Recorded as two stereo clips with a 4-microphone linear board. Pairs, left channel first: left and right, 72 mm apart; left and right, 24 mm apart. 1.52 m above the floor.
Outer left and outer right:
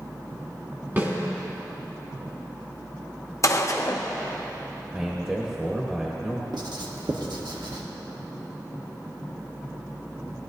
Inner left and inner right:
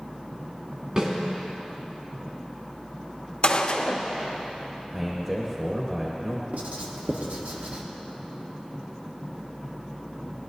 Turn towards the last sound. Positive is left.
turn(degrees=-75)  # may be behind; listen again after turning